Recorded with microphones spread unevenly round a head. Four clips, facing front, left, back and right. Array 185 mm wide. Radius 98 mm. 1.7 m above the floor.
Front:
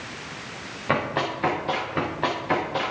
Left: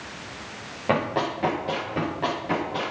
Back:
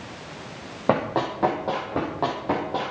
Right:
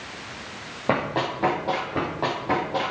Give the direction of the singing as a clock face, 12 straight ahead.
No singing in this recording.